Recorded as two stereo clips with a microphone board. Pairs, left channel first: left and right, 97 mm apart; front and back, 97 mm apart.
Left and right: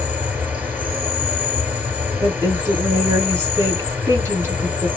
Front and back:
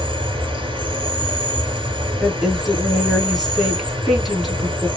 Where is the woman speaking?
95° right, 1.4 m.